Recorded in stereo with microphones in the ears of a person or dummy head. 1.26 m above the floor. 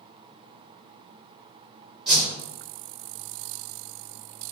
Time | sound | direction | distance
2.1 | a whoosh | 5° right (ahead or behind) | 1.5 m